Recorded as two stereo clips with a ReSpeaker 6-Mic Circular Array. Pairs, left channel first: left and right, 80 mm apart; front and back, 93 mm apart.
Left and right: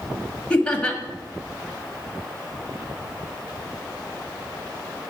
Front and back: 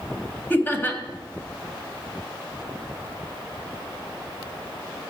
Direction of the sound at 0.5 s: 30° left.